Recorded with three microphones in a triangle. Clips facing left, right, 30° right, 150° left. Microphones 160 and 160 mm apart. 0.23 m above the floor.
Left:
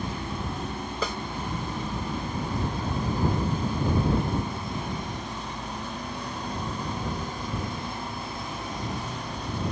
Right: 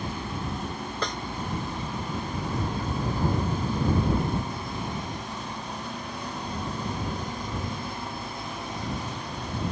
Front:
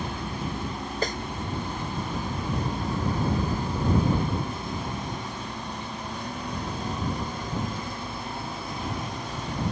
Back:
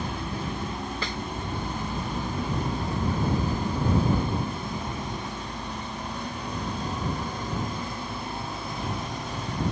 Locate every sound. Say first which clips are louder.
1.0 s a snare drum: left 1 dB, front 5 dB; 10° left